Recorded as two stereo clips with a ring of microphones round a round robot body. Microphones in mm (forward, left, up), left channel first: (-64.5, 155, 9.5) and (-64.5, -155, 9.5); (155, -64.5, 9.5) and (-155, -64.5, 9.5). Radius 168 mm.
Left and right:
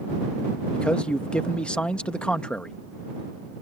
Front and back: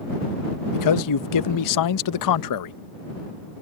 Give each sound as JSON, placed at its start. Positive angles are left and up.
{"t": 0.7, "sound": "a man speaking", "azimuth_deg": 5}